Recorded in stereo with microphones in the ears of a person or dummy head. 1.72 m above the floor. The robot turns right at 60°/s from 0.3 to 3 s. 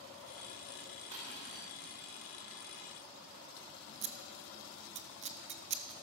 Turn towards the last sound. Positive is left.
turn(degrees=-35)  # may be behind; listen again after turning